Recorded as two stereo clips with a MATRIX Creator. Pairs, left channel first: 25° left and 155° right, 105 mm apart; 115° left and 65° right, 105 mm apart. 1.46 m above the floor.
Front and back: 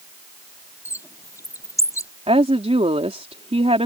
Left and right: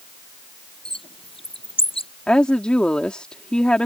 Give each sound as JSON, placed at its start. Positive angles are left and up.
{"t": 0.8, "sound": "a bird", "azimuth_deg": 85}
{"t": 2.3, "sound": "a woman speaking", "azimuth_deg": -165}